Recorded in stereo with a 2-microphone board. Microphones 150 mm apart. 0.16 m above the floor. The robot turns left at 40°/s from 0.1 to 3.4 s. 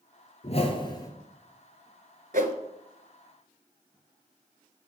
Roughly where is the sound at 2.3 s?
Right.